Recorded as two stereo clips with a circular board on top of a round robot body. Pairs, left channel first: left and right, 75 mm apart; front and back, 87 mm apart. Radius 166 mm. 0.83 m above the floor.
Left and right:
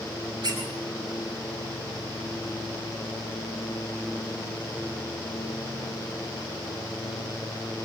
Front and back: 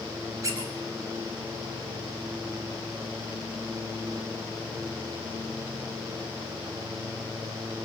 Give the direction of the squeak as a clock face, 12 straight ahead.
4 o'clock.